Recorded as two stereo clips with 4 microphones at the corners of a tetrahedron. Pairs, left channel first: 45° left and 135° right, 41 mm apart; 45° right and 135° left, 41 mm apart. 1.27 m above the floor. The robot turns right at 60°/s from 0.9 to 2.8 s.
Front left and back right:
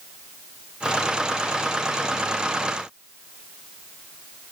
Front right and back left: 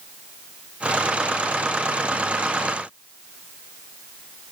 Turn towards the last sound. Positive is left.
No sound to turn to.